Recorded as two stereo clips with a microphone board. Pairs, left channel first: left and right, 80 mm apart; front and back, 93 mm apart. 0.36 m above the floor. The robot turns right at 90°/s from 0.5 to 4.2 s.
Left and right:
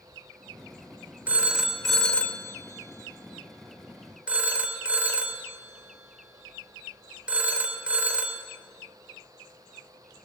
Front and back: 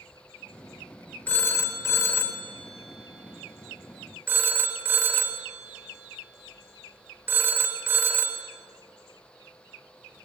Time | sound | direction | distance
1.3 | a phone ringing | 50° right | 0.8 m